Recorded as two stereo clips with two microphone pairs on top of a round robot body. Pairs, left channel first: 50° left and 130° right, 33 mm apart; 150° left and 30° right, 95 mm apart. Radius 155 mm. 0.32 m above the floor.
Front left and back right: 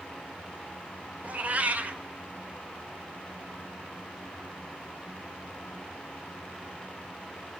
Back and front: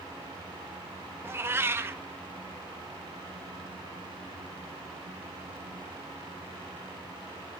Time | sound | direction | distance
1.2 | a cat meowing | 90° right | 0.8 m